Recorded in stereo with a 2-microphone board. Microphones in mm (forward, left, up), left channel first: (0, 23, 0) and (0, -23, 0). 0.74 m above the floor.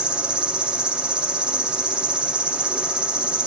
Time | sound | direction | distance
0.0 | an insect | 20° right (ahead or behind) | 0.8 m